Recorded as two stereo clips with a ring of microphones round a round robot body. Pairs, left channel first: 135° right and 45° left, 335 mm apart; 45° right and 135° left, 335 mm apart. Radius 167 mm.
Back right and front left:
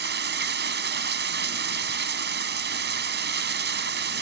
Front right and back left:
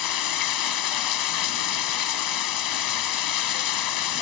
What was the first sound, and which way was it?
Running water, 15° right.